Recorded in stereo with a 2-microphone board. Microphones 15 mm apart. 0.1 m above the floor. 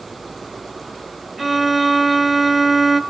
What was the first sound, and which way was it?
A violin, 5° right (ahead or behind).